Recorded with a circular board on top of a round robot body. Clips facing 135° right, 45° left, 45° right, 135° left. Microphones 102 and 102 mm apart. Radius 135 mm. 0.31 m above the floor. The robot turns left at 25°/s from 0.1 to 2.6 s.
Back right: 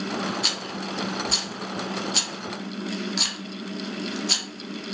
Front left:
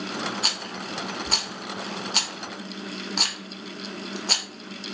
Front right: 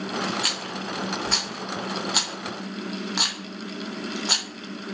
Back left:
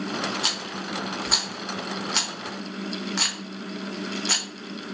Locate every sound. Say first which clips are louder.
0.4 s a rattle: back right 2 dB, front right 1 dB; 80° left, 0.8 m; by 4.5 s 25° left, 0.8 m